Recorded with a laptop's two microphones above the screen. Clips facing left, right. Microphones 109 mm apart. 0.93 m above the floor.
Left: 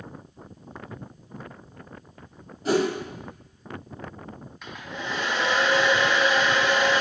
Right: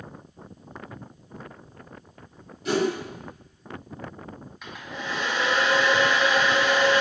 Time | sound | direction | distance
2.6 | a whoosh | 40° left (ahead or behind) | 1.0 m
4.6 | a hair dryer | centre (ahead or behind) | 0.8 m